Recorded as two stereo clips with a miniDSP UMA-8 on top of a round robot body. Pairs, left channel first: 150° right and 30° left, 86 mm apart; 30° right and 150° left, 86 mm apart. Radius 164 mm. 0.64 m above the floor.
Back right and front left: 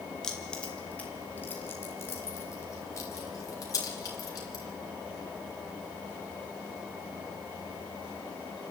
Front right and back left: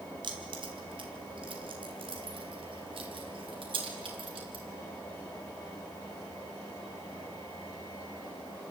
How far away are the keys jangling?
About 2.5 m.